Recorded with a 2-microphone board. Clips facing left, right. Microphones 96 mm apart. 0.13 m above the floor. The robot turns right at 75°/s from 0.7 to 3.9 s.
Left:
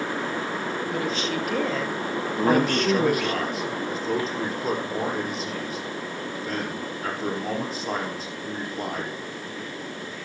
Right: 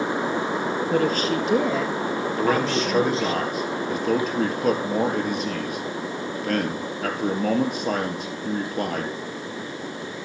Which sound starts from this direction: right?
A woman speaking, at 0.9 s.